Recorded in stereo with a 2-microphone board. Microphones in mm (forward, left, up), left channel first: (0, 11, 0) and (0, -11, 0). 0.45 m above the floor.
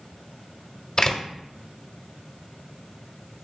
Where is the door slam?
30° left (ahead or behind), 1.2 m.